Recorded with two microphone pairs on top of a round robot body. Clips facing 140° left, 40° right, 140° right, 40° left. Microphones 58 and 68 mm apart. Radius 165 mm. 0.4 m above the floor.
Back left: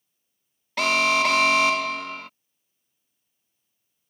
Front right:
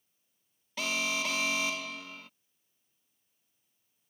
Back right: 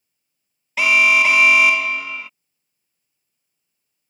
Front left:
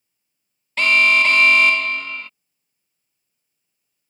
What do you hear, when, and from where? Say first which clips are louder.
0.8 s an alarm: back left 12 dB, back right 1 dB; 135° left